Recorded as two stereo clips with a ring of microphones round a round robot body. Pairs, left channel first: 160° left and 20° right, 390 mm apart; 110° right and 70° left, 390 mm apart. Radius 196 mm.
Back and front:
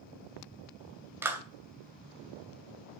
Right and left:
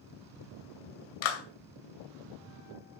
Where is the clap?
105° right, 2.5 m.